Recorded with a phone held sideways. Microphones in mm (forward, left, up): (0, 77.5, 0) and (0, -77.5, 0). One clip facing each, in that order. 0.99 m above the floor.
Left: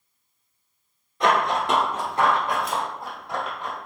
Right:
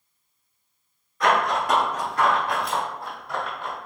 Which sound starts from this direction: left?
Running footsteps, at 1.2 s.